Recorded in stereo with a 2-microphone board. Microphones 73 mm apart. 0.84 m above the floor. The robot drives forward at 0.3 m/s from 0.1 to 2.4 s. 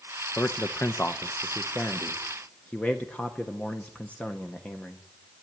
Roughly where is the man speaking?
Left.